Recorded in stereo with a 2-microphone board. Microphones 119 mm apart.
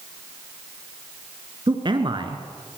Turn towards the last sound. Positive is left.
turn(degrees=-45)  # may be behind; listen again after turning